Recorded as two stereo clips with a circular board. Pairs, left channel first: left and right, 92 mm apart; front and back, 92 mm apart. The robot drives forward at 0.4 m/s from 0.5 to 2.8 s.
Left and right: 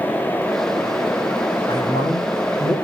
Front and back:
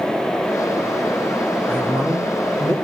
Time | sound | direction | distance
1.7 | a man speaking | 115° left | 5.5 m